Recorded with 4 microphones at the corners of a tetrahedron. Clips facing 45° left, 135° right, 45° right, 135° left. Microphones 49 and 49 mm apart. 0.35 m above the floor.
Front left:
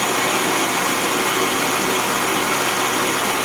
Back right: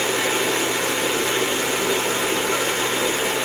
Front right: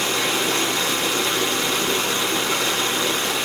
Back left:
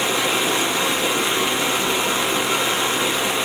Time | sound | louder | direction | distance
0.0 | running water | front left 2 dB, back left 2 dB | 60° left | 1.0 m